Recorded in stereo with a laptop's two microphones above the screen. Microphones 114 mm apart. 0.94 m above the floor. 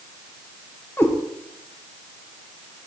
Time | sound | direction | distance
1.0 | a cat meowing | 20° left (ahead or behind) | 0.9 m